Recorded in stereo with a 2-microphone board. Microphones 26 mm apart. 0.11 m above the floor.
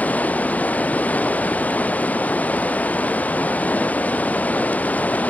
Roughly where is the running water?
Left.